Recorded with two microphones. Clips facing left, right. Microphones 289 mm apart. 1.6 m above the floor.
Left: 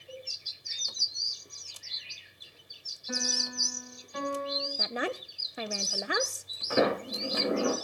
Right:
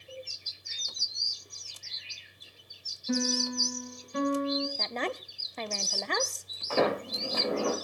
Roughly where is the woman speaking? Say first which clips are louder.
Left 1 dB; centre.